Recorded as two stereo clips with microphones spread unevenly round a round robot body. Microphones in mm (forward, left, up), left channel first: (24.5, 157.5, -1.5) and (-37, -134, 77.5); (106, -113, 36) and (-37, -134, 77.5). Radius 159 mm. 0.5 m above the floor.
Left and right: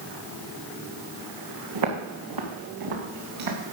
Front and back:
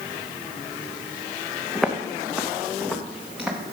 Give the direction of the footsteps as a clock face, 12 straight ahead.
3 o'clock.